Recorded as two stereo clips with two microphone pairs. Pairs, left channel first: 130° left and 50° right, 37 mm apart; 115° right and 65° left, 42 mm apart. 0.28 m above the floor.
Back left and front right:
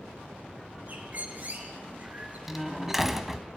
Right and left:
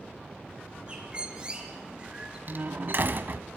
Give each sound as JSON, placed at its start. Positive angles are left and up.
{"t": 0.9, "sound": "a bird", "azimuth_deg": -5, "distance_m": 3.0}
{"t": 2.5, "sound": "a door slam", "azimuth_deg": 35, "distance_m": 1.2}